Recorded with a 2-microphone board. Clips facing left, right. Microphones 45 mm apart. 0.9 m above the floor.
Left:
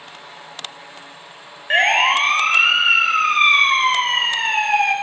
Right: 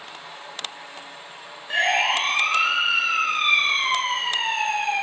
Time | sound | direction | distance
1.7 | a siren | 40° left (ahead or behind) | 6 m